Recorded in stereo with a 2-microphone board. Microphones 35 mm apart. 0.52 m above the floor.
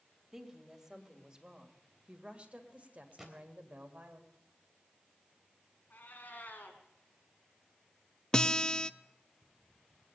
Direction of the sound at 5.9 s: 60° left (ahead or behind).